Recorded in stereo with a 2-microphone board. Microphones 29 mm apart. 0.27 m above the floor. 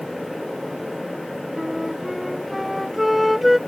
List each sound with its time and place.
1.6 s a flute: 5° right (ahead or behind)